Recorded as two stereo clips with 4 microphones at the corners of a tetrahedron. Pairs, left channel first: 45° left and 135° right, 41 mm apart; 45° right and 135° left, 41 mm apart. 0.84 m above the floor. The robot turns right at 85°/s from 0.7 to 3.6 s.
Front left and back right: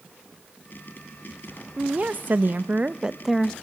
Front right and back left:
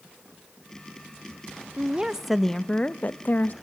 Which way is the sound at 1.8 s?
175° left.